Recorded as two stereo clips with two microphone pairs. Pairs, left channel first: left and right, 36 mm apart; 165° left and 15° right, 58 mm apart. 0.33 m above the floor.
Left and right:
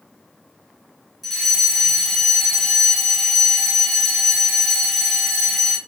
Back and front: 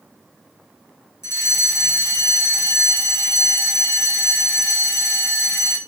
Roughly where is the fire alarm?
Behind.